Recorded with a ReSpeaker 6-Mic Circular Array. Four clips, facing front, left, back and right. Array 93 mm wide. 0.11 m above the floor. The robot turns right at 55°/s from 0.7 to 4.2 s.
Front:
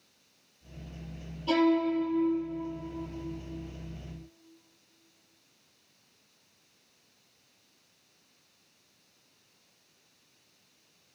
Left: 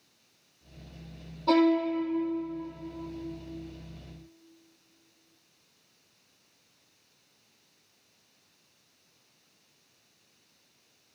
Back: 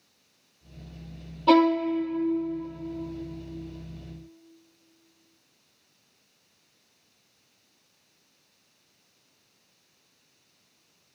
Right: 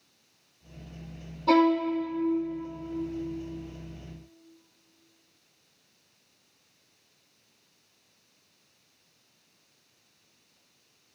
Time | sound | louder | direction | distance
1.5 | a violin | right 1 dB, back 5 dB | straight behind | 1.4 m